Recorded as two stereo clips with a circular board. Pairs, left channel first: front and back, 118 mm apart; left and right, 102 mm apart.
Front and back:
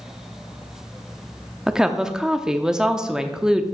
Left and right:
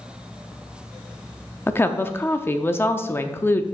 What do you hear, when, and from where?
1.7 s a woman speaking: 105° left, 0.6 m